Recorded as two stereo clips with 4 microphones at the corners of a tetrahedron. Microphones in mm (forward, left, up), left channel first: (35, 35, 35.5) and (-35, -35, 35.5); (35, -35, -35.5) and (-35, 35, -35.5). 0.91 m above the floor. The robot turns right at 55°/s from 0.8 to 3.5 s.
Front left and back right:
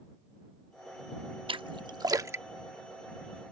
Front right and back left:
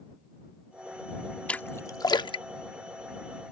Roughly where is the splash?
Behind right.